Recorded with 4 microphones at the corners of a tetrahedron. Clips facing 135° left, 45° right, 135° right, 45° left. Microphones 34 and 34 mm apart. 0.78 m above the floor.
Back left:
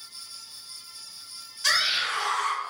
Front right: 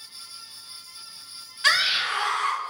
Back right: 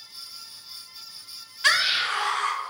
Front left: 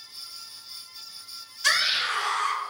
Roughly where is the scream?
Right.